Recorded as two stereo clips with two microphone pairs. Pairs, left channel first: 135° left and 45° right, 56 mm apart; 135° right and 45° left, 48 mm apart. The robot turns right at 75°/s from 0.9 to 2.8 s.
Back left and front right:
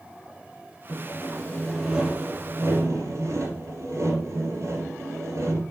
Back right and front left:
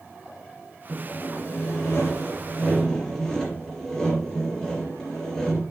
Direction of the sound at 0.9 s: 160° left.